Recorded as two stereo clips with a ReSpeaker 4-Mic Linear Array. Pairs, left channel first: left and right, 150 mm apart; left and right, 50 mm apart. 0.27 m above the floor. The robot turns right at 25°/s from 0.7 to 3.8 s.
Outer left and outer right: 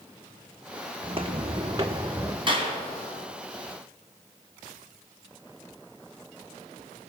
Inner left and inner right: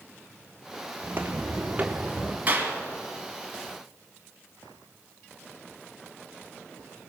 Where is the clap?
35° right (ahead or behind), 2.5 m; by 2.7 s 40° right (ahead or behind), 2.5 m.